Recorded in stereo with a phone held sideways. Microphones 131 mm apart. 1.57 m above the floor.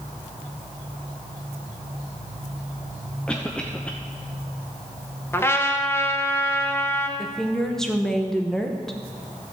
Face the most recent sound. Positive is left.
turn(degrees=5)  # may be behind; listen again after turning